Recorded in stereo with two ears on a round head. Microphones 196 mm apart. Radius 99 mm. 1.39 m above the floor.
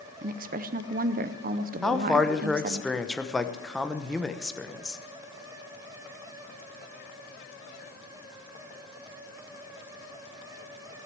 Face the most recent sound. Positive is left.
turn(degrees=0)  # may be behind; listen again after turning